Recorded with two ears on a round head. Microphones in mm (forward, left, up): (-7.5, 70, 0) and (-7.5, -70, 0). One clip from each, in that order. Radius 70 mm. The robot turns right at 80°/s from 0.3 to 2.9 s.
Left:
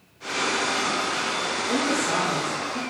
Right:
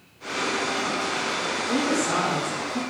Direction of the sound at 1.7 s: 145° left.